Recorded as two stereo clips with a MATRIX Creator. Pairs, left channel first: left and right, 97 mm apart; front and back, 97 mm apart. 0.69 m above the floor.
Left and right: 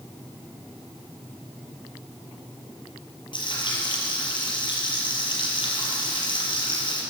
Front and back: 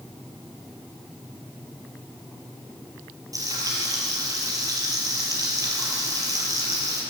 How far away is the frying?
About 6 m.